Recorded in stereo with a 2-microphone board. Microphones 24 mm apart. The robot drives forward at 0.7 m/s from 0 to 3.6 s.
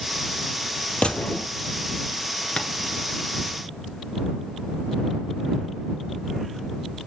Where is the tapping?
45° left (ahead or behind), 1.2 m.